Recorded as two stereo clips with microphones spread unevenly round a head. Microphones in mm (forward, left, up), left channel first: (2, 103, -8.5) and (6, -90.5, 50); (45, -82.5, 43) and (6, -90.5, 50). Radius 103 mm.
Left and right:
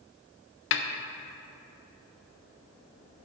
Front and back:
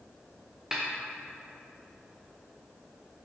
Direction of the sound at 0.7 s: 110° left.